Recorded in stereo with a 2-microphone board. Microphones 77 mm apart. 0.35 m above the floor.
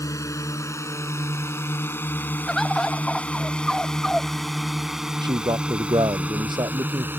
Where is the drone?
45° left (ahead or behind); by 7.2 s 30° right (ahead or behind).